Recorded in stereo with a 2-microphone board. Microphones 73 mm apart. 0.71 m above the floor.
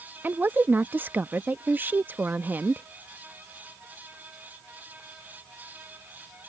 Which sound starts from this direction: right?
A woman speaking, at 0.2 s.